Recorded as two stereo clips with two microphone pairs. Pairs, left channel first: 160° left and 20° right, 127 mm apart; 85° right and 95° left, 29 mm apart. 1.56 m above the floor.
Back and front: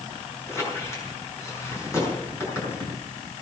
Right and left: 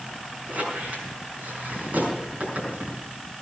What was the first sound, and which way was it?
A squeak, 95° left.